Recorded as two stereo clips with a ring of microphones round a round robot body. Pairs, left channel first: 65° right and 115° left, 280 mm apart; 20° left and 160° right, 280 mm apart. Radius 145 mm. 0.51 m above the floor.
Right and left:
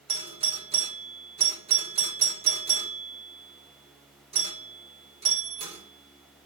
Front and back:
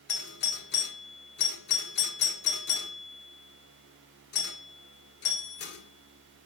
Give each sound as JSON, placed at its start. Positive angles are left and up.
{"t": 0.1, "sound": "a doorbell", "azimuth_deg": 50, "distance_m": 1.8}